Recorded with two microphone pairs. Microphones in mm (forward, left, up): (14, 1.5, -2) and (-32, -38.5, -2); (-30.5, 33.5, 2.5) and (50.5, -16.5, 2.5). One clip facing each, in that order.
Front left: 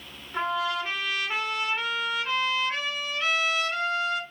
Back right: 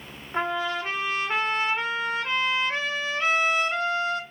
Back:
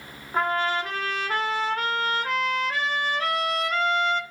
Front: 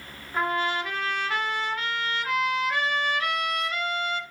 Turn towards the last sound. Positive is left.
turn(degrees=180)